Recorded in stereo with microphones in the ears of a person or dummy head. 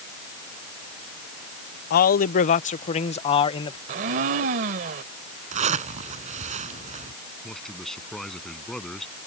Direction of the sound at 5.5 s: 40° right (ahead or behind).